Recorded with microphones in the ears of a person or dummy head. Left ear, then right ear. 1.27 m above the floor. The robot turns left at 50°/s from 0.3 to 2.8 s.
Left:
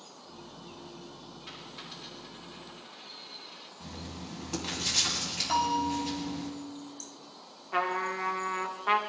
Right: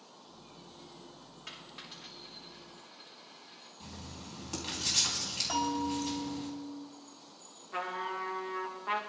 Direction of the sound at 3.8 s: 10° right (ahead or behind).